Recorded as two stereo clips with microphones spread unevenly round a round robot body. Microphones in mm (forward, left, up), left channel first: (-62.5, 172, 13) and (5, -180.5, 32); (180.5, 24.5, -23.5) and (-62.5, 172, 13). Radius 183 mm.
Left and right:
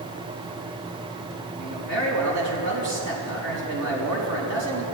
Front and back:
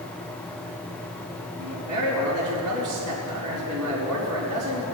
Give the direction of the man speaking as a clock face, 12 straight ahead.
4 o'clock.